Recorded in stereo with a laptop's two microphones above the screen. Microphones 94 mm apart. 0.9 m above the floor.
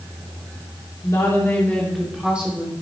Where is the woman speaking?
45° left (ahead or behind), 1.9 m; by 2.7 s 20° right (ahead or behind), 2.5 m.